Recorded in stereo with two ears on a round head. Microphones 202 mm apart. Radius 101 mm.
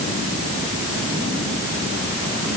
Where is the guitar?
No guitar in this recording.